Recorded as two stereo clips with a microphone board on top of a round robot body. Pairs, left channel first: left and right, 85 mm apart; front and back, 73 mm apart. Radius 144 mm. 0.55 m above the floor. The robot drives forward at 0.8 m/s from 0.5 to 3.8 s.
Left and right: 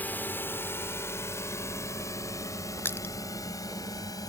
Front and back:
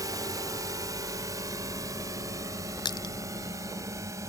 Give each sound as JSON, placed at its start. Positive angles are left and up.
{"t": 0.0, "sound": "a drone", "azimuth_deg": 155}
{"t": 2.9, "sound": "crushing", "azimuth_deg": 25}